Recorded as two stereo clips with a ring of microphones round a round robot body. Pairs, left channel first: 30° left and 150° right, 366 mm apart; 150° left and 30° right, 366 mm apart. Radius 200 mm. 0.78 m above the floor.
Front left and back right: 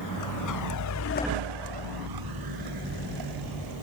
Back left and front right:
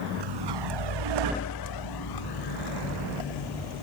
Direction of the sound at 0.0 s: 10° right.